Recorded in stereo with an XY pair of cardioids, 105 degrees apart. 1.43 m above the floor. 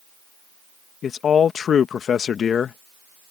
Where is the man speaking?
50° left.